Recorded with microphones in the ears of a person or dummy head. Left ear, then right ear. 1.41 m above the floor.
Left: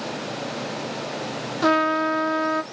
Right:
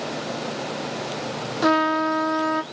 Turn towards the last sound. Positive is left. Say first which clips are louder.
# even
turn(degrees=0)  # may be behind; listen again after turning